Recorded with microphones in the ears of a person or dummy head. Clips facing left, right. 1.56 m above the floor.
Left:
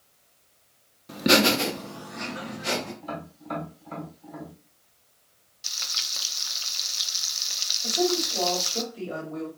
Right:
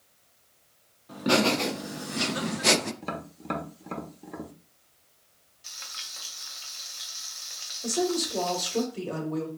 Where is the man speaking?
75° right (ahead or behind), 2 m.